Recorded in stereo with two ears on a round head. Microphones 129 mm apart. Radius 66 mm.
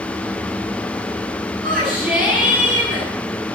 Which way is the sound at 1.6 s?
Centre (ahead or behind).